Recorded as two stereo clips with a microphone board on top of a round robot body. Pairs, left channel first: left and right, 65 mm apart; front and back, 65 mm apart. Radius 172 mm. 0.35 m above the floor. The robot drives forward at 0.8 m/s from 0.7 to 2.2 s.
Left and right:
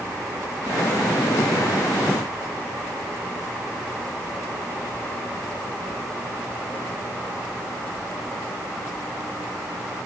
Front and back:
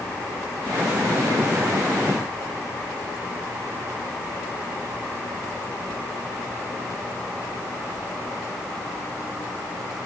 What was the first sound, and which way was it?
Only background noise.